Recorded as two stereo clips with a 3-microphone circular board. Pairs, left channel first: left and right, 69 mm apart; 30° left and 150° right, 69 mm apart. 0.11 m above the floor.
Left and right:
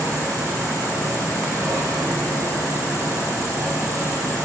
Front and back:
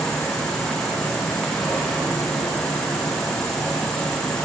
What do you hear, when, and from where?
0.0 s an insect: 50° right, 4.5 m